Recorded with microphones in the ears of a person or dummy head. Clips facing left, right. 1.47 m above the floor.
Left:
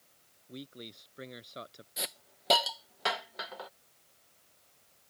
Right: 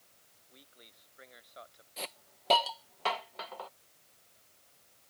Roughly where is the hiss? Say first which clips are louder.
Even; centre.